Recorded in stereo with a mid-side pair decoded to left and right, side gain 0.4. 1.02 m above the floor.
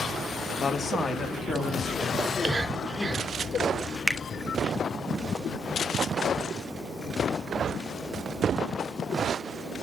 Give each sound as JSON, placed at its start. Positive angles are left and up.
{"t": 0.6, "sound": "a man speaking", "azimuth_deg": 50, "distance_m": 1.5}
{"t": 2.2, "sound": "whispering", "azimuth_deg": -35, "distance_m": 3.5}
{"t": 4.1, "sound": "a finger snap", "azimuth_deg": 10, "distance_m": 1.2}